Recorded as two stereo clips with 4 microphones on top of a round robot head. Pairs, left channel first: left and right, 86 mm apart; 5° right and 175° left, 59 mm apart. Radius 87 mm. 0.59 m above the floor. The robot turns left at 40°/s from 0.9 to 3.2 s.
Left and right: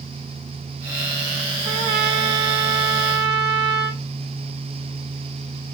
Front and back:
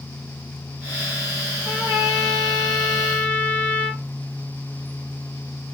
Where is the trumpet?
110° right, 0.5 m; by 4.0 s 170° right, 0.5 m.